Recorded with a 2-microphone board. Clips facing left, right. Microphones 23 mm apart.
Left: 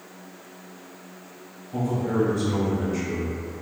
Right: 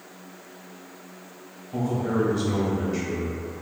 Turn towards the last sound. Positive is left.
turn(degrees=-25)  # may be behind; listen again after turning